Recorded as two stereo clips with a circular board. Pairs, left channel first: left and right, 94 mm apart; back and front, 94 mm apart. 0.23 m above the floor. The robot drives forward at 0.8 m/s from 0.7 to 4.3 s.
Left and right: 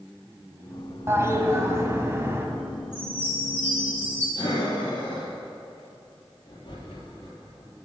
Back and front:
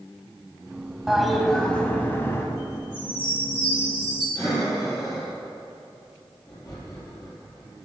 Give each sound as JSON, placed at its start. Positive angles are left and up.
{"t": 1.1, "sound": "a toilet flushing", "azimuth_deg": -80, "distance_m": 1.7}
{"t": 2.9, "sound": "a chime", "azimuth_deg": 160, "distance_m": 5.5}
{"t": 4.3, "sound": "breathing", "azimuth_deg": 125, "distance_m": 4.0}